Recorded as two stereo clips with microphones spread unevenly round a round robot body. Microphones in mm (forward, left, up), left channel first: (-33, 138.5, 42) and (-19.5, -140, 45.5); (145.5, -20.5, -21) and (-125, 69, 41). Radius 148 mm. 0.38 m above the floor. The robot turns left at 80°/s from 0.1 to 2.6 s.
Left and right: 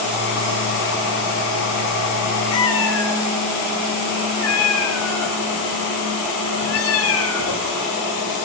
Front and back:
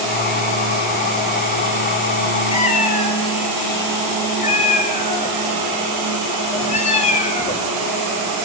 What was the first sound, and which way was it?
A cat meowing, 55° left.